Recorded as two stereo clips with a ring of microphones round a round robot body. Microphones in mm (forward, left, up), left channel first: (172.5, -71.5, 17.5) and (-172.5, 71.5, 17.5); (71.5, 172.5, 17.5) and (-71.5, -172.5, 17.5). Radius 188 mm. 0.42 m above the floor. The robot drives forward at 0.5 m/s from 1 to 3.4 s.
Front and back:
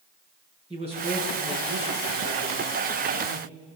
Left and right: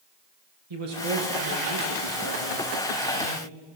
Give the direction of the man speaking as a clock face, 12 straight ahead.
4 o'clock.